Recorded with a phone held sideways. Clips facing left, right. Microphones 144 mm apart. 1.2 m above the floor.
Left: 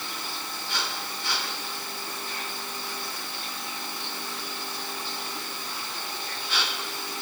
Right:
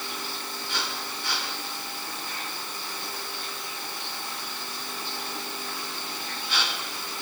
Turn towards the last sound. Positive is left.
No sound to turn to.